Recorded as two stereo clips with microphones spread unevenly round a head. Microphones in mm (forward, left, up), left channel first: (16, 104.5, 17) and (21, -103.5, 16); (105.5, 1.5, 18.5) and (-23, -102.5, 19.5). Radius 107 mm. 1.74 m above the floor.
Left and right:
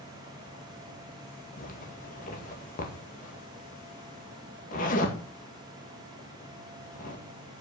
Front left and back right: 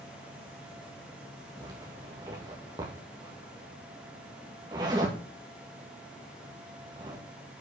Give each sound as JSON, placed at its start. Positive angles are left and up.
{"t": 1.6, "sound": "a zipper", "azimuth_deg": 145, "distance_m": 2.0}